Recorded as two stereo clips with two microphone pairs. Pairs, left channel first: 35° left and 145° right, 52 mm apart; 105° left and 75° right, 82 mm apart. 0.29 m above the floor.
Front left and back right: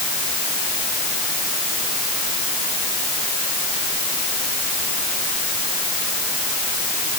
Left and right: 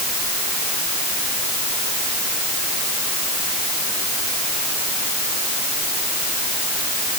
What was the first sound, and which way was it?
Only background noise.